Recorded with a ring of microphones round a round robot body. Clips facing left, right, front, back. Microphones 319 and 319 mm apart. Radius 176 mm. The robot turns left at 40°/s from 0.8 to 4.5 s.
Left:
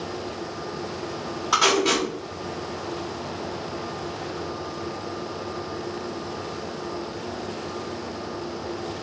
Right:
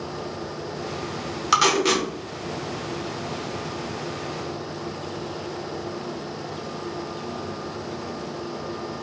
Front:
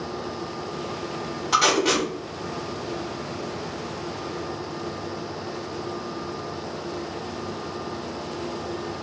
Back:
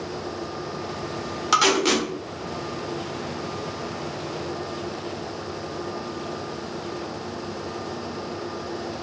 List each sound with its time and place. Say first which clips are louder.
1.5 s tape being pulled: even, back 1 dB; 120° right, 1.1 m; by 2.1 s 140° right, 1.1 m